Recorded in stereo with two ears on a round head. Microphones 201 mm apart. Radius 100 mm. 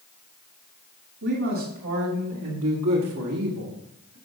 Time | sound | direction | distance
1.2 | a man speaking | 55° right (ahead or behind) | 2.5 m